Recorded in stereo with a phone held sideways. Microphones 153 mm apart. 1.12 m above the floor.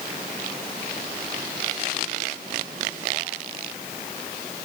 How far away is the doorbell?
I don't hear a doorbell.